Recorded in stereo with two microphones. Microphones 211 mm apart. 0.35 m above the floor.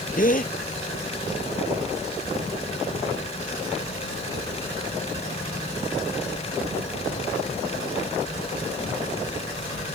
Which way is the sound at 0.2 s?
40° left (ahead or behind).